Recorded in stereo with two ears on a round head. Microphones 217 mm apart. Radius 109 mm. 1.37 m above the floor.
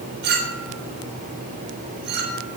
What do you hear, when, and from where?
0.2 s a clink: 45° right (ahead or behind), 4.5 m